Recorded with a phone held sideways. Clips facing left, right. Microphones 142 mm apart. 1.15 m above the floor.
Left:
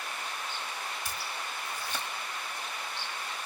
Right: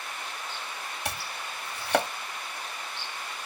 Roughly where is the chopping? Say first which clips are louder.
Right 2 dB; right.